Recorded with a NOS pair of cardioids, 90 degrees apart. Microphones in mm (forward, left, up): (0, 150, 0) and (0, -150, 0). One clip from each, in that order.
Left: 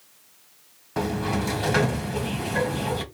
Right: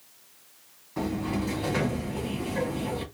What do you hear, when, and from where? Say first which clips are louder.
1.0 s a sliding door: left 4 dB; 65° left, 1.2 m